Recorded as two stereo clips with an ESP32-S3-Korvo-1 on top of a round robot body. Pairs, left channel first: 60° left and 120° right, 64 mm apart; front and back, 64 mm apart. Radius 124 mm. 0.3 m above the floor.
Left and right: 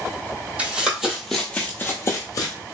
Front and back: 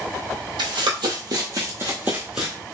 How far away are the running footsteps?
About 1.0 m.